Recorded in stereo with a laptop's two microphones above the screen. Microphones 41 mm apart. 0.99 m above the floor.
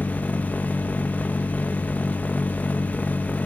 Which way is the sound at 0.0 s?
50° left (ahead or behind).